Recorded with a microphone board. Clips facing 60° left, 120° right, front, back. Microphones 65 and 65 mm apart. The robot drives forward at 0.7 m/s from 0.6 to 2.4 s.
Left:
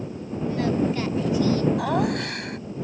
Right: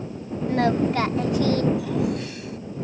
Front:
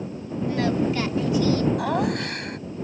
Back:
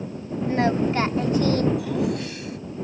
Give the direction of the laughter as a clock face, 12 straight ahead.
11 o'clock.